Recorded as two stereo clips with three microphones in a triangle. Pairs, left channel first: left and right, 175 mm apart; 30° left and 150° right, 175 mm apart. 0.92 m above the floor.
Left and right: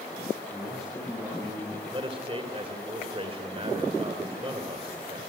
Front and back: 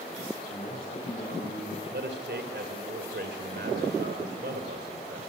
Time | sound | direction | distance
0.5 | a man speaking | straight ahead | 7.5 m
1.9 | a man speaking | 150° right | 3 m